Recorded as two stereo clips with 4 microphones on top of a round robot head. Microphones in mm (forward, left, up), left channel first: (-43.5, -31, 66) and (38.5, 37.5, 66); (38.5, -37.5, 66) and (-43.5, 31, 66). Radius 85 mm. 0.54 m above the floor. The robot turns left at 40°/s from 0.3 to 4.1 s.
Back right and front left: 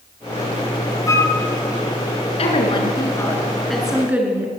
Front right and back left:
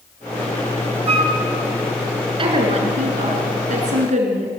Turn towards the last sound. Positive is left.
turn(degrees=120)